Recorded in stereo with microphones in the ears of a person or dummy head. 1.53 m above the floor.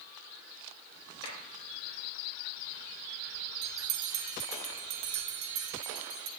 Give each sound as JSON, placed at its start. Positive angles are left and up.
{"t": 1.2, "sound": "a clap", "side_deg": 30, "distance_m": 6.5}
{"t": 3.6, "sound": "a bell", "side_deg": -70, "distance_m": 1.5}